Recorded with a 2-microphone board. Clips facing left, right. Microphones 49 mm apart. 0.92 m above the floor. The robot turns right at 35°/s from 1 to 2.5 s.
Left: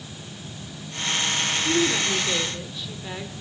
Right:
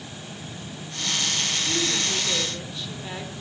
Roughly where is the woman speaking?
Left.